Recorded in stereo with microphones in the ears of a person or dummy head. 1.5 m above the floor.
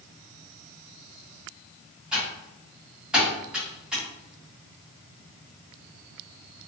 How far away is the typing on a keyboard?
About 1.8 m.